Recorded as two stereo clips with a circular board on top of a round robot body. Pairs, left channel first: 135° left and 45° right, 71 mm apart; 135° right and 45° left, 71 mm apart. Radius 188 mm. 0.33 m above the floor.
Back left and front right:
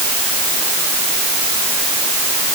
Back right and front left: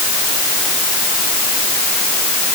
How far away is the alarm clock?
I don't hear an alarm clock.